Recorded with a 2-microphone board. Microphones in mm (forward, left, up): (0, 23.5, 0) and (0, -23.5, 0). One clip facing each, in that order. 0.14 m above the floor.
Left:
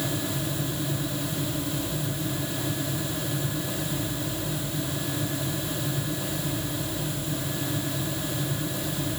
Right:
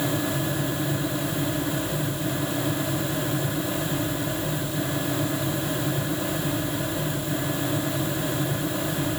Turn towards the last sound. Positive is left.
No sound to turn to.